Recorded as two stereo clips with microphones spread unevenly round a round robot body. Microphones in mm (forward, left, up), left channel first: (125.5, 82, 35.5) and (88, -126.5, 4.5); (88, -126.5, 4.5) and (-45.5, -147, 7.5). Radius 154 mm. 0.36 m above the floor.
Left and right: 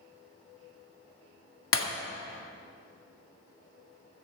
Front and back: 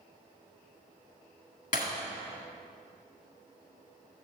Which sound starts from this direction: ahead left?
Breaking glass, at 1.7 s.